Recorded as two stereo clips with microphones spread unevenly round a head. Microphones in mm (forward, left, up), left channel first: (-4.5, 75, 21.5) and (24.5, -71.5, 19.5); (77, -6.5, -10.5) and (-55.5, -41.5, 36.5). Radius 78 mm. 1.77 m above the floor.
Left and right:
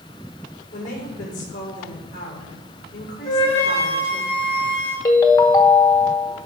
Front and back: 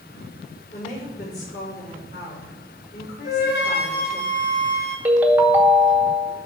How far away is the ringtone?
About 1.0 m.